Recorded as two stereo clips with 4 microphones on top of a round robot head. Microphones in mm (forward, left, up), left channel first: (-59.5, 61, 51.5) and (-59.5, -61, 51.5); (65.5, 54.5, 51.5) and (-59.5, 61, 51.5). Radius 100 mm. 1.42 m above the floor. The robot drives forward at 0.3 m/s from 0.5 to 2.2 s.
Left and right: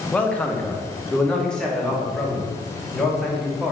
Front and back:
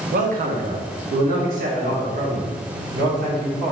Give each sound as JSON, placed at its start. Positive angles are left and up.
{"t": 0.1, "sound": "a man speaking", "azimuth_deg": 170, "distance_m": 0.6}